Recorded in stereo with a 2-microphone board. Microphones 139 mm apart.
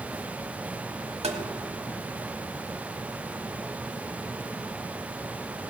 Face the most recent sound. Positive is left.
turn(degrees=-50)  # may be behind; listen again after turning